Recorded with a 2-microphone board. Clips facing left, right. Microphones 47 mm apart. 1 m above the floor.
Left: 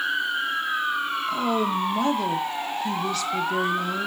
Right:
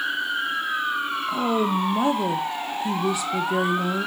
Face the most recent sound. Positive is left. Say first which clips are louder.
# right 2 dB
turn(degrees=-15)  # may be behind; listen again after turning